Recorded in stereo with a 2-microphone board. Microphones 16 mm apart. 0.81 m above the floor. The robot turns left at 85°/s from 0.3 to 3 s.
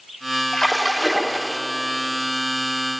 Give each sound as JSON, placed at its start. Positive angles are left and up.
{"t": 0.5, "sound": "a splash", "azimuth_deg": 35, "distance_m": 1.7}